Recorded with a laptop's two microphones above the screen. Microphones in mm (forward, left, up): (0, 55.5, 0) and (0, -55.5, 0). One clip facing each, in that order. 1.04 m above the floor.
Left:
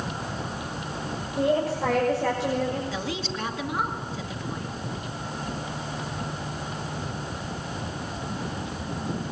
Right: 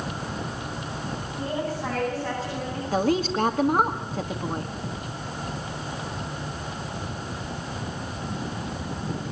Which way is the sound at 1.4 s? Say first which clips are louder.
Left 7 dB; 85° left.